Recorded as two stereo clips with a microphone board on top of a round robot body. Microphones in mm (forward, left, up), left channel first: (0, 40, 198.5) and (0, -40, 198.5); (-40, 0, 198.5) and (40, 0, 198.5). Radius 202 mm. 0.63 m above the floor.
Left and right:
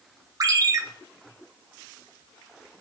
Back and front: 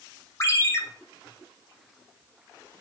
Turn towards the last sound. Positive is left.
turn(degrees=-125)